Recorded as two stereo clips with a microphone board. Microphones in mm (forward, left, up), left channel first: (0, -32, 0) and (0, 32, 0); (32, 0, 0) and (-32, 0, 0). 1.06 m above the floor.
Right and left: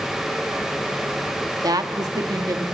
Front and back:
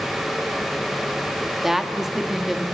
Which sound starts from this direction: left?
A woman speaking, at 1.6 s.